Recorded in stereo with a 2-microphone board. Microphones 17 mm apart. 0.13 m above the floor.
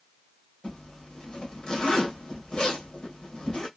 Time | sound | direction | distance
0.6 | a zipper | 75° left (ahead or behind) | 2 m